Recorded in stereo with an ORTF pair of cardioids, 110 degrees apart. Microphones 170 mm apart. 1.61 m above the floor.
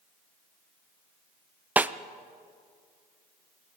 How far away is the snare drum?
About 0.6 m.